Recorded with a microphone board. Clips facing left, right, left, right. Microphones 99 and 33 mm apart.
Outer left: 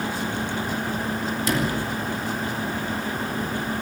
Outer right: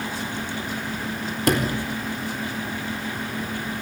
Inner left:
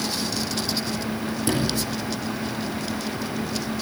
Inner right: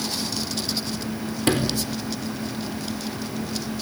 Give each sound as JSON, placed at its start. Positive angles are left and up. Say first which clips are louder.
{"t": 1.5, "sound": "a sliding door", "louder": "outer right 4 dB, inner right 3 dB", "side_deg": -60, "distance_m": 4.0}